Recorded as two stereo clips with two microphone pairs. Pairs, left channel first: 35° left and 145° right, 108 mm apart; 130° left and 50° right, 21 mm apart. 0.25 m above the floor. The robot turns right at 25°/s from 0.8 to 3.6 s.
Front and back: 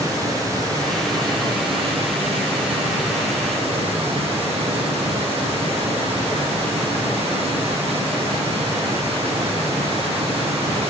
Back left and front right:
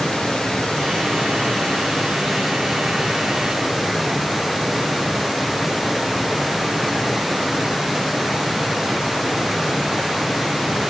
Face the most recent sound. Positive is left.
turn(degrees=-135)